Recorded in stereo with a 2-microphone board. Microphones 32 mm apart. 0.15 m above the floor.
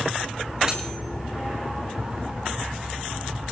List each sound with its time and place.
0.7 s cutlery clinking: 25° right (ahead or behind), 8 m